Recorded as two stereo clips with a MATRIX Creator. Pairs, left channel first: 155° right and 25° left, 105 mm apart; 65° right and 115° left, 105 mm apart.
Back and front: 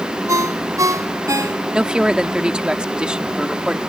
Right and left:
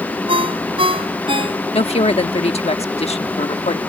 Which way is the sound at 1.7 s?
60° right.